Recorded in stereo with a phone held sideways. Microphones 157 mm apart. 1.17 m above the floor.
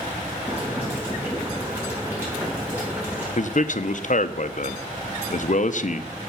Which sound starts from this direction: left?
A man speaking, at 3.4 s.